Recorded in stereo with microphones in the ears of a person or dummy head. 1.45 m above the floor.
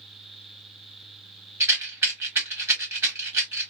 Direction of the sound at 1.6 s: 10° right (ahead or behind).